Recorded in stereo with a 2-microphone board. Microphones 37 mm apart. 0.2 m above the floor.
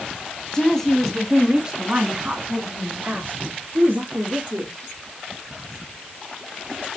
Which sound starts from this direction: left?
A woman speaking, at 0.5 s.